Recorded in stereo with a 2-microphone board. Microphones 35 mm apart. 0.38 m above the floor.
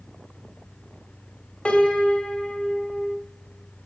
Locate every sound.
1.6 s a piano: 45° left (ahead or behind), 1.5 m